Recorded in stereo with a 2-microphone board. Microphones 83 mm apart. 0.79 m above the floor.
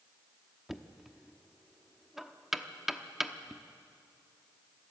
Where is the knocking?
5° right (ahead or behind), 0.9 m.